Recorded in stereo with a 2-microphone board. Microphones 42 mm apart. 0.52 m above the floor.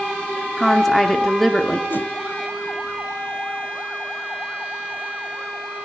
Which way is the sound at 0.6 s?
10° left (ahead or behind).